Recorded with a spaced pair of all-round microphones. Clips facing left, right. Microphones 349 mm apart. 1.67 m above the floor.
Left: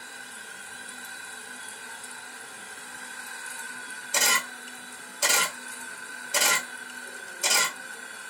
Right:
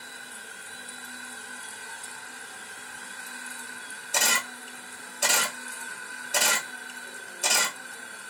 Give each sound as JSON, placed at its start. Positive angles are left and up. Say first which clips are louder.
{"t": 4.1, "sound": "a camera shutter", "louder": "even", "side_deg": 5, "distance_m": 0.6}